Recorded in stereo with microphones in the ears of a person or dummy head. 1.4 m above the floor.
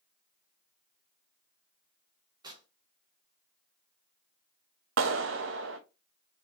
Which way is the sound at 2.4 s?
20° right (ahead or behind).